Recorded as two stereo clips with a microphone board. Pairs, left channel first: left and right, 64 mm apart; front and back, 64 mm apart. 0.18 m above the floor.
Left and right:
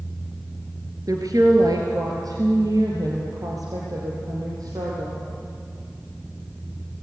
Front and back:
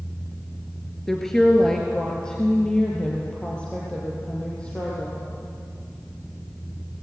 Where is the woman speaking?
85° right, 2.5 m; by 5.2 s 70° right, 5 m.